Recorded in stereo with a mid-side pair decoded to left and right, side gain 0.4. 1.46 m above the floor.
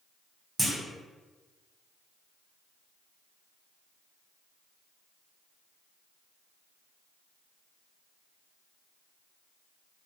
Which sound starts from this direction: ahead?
A clunk, at 0.6 s.